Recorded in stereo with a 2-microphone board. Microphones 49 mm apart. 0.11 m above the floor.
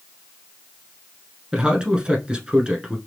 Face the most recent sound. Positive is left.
turn(degrees=-20)  # may be behind; listen again after turning